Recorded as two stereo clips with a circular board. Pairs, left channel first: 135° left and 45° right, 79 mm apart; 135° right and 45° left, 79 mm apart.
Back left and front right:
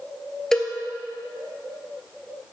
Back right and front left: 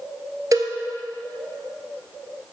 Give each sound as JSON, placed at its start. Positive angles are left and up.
{"t": 0.5, "sound": "a cowbell", "azimuth_deg": 50, "distance_m": 1.0}